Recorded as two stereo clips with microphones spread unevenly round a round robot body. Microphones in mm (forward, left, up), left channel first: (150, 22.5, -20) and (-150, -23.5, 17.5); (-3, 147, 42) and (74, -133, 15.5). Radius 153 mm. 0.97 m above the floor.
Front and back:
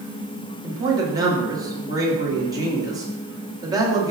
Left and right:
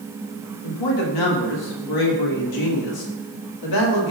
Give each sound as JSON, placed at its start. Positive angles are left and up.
{"t": 0.6, "sound": "a man speaking", "azimuth_deg": 110, "distance_m": 1.7}